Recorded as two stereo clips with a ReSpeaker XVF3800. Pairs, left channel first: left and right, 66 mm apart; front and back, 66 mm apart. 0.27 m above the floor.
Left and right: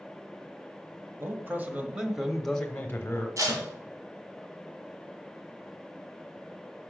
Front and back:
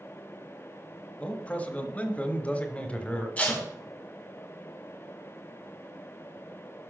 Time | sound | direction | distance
1.2 | a man speaking | 65° right | 1.2 m
3.4 | tape being pulled | 70° right | 2 m